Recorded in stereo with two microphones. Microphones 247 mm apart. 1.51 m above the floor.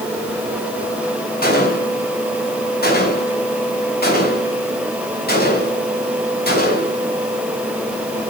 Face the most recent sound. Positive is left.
turn(degrees=40)  # may be behind; listen again after turning